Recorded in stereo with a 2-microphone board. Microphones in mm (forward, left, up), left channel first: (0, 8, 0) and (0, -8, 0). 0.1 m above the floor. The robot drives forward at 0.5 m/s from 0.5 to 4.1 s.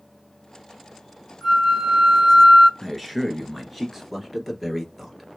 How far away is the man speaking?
About 1.7 m.